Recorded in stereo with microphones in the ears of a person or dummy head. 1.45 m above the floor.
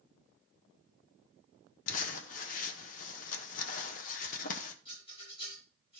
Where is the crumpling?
45° left (ahead or behind), 1.2 m.